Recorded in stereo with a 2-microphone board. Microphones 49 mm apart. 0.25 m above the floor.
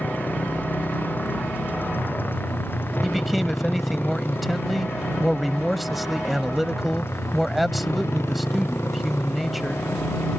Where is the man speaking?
Centre (ahead or behind).